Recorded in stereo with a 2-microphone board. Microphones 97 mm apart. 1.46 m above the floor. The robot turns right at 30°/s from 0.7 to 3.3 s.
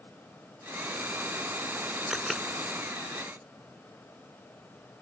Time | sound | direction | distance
2.1 | a camera shutter | 5° right (ahead or behind) | ?